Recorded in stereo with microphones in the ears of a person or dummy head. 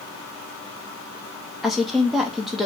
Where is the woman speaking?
5° left (ahead or behind), 0.7 m.